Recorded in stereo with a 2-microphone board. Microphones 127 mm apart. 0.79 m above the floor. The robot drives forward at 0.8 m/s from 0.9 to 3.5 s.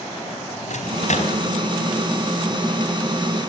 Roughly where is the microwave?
Left.